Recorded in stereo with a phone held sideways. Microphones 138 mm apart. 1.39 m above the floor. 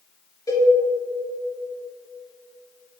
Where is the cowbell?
25° left (ahead or behind), 2 m.